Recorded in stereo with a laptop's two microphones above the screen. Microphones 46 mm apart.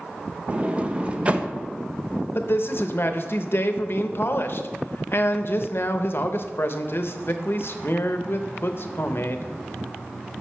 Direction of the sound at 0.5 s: 30° right (ahead or behind).